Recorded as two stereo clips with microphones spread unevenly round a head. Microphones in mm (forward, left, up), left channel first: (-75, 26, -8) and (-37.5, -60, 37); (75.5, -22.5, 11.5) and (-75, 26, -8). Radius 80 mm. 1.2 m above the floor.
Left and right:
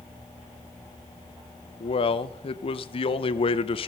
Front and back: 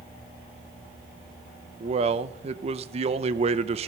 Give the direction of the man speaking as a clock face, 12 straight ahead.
8 o'clock.